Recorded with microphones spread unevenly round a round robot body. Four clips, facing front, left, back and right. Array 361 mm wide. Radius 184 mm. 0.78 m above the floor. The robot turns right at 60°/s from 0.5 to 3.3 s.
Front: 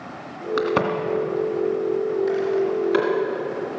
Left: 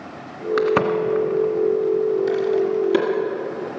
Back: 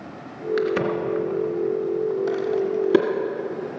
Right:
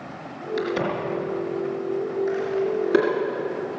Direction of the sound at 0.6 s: 35° left.